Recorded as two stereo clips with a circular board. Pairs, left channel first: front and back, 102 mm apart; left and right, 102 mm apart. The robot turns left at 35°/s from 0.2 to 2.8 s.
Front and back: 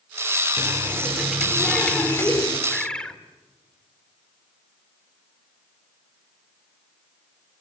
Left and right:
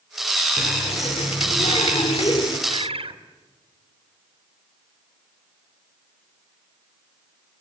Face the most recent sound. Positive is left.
turn(degrees=-85)